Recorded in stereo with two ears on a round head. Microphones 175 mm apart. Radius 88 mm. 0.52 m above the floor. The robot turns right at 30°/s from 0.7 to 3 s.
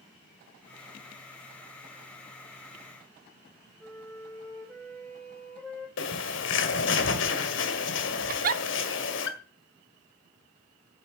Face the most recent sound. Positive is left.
turn(degrees=-45)  # may be behind; listen again after turning